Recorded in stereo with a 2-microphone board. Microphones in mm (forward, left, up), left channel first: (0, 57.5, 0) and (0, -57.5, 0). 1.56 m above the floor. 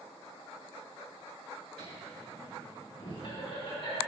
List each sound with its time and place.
1.8 s laughter: 65° left (ahead or behind), 3 m; by 4.0 s 60° left (ahead or behind), 5 m